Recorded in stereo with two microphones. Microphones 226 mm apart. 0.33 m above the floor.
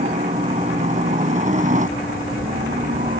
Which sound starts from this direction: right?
A helicopter, at 0.0 s.